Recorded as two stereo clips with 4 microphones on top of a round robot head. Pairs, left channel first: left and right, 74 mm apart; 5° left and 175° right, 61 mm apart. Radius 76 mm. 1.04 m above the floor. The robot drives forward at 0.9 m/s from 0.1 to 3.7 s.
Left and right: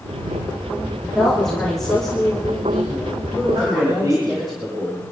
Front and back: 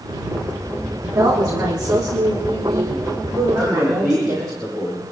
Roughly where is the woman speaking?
Behind.